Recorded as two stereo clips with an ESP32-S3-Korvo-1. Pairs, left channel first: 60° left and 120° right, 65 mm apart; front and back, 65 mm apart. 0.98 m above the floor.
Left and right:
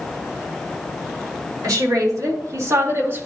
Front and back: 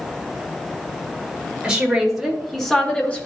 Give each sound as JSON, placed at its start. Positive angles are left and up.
{"t": 1.6, "sound": "a woman speaking", "azimuth_deg": -100, "distance_m": 3.0}